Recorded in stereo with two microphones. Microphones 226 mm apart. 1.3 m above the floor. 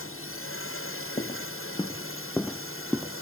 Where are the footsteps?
30° left (ahead or behind); by 3.2 s 5° right (ahead or behind).